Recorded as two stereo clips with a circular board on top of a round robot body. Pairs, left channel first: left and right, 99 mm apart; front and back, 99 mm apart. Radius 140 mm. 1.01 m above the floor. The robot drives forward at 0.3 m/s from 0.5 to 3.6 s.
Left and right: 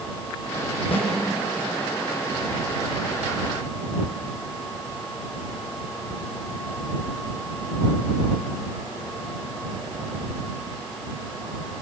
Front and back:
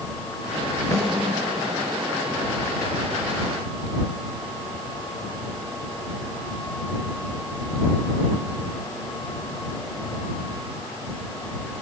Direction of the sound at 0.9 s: 60° left.